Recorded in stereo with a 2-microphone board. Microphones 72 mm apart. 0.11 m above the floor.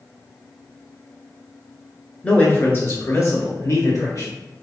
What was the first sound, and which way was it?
A man speaking, 15° left (ahead or behind).